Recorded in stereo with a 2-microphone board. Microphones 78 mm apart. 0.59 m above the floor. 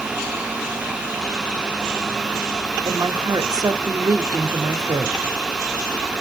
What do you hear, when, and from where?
2.9 s a woman speaking: 55° right (ahead or behind), 1.1 m